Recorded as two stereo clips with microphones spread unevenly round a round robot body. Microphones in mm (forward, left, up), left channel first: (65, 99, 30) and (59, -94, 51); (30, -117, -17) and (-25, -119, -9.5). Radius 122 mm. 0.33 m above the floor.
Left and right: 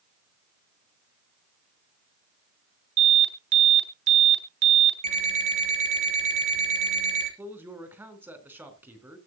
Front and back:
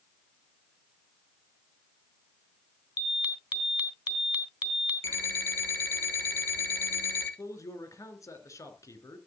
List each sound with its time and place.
3.0 s an alarm: 120° right, 4 m
5.0 s an alarm clock: 40° right, 6 m
7.4 s a man speaking: 10° right, 4 m